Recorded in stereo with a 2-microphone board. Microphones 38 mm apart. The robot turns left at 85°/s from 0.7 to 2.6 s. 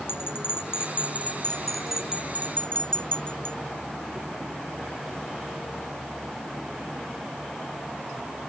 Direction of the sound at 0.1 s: 70° left (ahead or behind).